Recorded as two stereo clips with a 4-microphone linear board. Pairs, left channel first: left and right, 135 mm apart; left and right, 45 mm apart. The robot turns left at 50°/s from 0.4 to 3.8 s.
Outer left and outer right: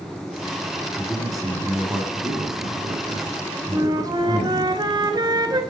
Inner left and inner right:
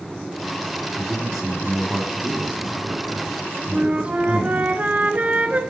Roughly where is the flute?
Right.